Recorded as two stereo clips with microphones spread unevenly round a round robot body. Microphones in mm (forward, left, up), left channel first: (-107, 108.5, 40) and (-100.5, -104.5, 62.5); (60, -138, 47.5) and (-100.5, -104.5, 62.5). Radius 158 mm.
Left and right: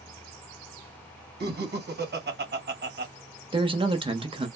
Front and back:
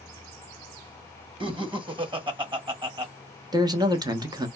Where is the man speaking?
140° right, 0.9 m.